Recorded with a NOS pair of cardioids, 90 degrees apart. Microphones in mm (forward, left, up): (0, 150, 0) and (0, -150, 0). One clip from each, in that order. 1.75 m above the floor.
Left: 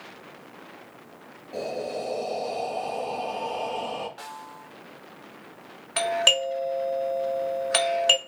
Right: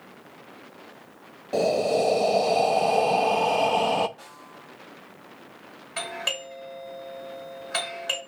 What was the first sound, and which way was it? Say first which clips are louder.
Breathing: right 9 dB; 55° right.